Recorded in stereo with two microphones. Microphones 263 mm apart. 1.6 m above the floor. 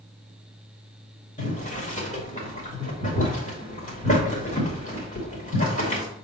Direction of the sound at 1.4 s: 30° left (ahead or behind).